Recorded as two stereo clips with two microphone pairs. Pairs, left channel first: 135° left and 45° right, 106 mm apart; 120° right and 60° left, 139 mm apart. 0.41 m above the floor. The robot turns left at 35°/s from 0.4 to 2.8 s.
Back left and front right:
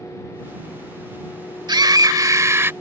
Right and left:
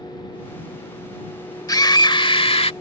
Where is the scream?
65° right; by 2.7 s 100° right.